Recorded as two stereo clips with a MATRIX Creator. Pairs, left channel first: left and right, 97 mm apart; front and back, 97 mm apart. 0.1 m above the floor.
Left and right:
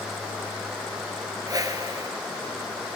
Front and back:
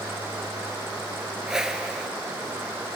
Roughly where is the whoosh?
Right.